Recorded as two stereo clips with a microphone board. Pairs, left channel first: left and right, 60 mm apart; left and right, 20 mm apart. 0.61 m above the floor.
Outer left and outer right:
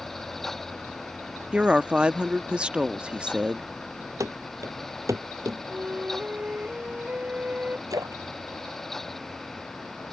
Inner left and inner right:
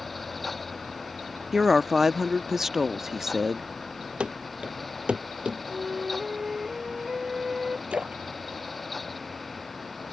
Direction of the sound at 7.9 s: 80° right.